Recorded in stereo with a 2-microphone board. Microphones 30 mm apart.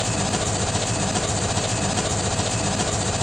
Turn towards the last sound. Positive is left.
turn(degrees=5)  # may be behind; listen again after turning